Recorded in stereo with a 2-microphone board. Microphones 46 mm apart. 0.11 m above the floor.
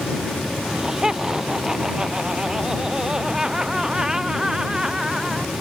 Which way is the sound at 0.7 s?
15° right (ahead or behind).